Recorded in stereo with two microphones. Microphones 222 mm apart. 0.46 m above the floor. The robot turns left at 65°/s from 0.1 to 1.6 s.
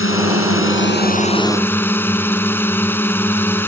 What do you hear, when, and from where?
0.0 s a drone: 105° left; by 3.7 s 10° left